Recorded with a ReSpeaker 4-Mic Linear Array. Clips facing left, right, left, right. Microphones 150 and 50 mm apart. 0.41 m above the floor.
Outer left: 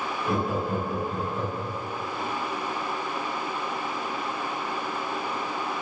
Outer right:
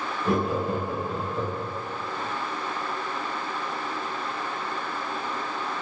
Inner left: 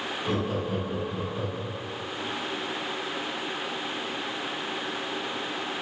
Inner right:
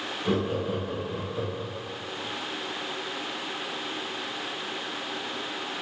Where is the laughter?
30° right (ahead or behind), 1.2 m; by 1.8 s 5° left (ahead or behind), 1.4 m.